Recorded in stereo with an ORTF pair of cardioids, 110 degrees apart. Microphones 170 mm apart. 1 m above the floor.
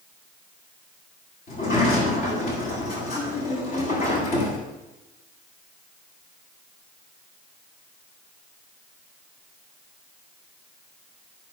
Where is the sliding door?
60° left, 8.5 m.